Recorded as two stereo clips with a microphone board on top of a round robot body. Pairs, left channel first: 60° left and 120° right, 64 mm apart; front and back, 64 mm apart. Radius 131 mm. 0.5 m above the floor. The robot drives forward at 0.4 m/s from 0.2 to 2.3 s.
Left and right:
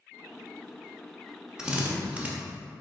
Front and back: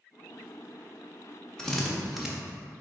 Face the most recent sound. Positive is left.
turn(degrees=-110)